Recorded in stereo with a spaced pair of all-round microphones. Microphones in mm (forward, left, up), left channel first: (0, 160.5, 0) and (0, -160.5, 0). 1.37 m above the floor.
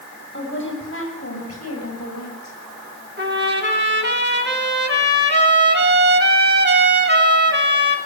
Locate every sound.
0.3 s a woman speaking: 35° left (ahead or behind), 8.5 m; by 2.6 s 60° left (ahead or behind), 7.5 m
3.2 s a trumpet: 35° right (ahead or behind), 4 m